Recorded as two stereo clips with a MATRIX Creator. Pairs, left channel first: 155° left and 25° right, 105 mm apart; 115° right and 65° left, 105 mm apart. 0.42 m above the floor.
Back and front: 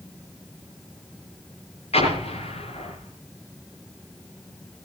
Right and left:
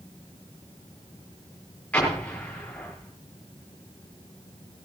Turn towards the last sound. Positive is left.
turn(degrees=170)